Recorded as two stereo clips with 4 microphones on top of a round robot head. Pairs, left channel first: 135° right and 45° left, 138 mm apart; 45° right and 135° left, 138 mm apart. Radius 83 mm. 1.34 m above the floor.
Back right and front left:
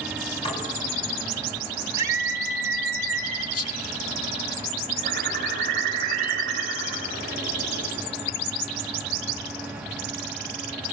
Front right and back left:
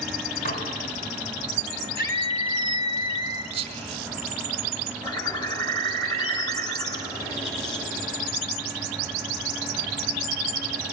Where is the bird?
15° left, 8.5 m.